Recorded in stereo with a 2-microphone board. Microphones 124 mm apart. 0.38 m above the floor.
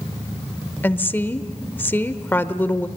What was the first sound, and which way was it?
A woman speaking, 15° left (ahead or behind).